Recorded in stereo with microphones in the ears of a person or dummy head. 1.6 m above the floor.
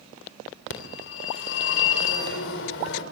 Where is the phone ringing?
70° left (ahead or behind), 3 m.